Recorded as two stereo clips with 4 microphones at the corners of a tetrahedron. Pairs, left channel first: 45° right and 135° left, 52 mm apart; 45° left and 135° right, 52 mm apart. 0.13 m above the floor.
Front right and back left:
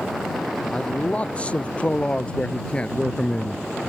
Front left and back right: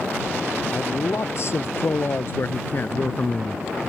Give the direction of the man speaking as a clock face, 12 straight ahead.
11 o'clock.